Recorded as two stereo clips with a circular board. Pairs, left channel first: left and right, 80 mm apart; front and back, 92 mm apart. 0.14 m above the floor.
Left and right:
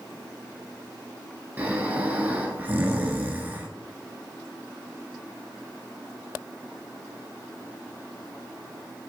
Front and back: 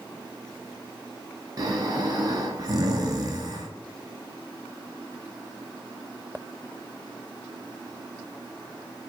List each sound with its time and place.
1.6 s snoring: 150° right, 0.8 m